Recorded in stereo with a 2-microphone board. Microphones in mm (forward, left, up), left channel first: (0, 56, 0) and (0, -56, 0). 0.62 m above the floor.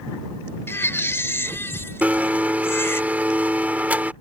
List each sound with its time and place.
0.7 s a baby crying: 20° left (ahead or behind)
2.0 s a blender: 15° right (ahead or behind)